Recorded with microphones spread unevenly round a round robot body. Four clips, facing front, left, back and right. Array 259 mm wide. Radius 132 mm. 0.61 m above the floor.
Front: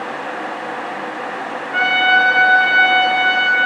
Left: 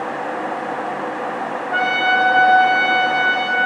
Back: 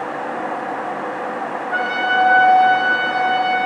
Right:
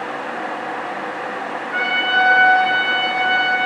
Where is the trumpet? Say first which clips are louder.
Left 2 dB, front 4 dB; 120° left, 3 m.